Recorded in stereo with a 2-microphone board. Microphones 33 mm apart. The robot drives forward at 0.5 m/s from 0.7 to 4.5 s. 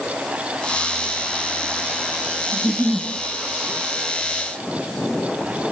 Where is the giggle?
50° right (ahead or behind), 0.7 m; by 3.1 s 45° right (ahead or behind), 0.8 m.